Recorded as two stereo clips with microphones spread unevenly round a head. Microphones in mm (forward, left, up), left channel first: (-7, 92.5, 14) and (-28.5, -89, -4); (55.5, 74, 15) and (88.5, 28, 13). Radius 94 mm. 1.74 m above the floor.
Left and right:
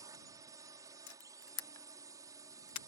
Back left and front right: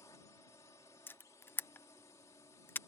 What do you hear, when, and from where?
0.0 s a drone: 170° right
1.1 s a camera shutter: 70° left